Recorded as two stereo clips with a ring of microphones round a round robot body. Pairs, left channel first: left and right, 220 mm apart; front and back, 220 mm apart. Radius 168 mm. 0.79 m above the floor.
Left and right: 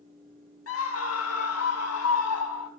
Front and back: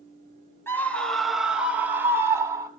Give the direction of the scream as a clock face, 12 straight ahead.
9 o'clock.